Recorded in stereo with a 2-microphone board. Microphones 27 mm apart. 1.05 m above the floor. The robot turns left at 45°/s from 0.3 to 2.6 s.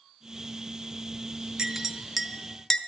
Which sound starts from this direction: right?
A clink, at 1.6 s.